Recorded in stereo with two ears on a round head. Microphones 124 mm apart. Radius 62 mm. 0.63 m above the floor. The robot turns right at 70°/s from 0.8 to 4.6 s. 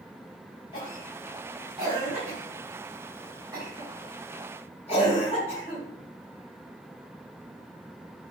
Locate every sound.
0.7 s a cough: 40° left (ahead or behind), 4 m; by 8.3 s 45° left (ahead or behind), 4 m